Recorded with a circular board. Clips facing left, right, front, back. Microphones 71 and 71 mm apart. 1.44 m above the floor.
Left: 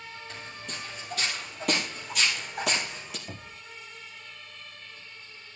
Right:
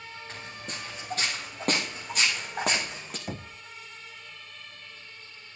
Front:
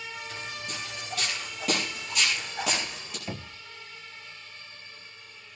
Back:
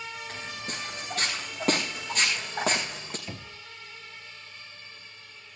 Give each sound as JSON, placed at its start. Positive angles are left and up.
{"t": 0.3, "sound": "footsteps", "azimuth_deg": -135, "distance_m": 6.5}
{"t": 3.3, "sound": "knocking", "azimuth_deg": -65, "distance_m": 0.8}